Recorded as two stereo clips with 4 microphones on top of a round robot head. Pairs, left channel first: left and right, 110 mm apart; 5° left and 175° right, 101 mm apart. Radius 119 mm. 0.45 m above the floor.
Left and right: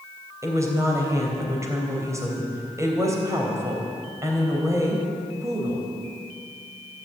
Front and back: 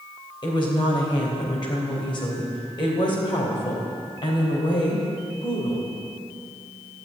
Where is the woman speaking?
30° right, 3.5 m.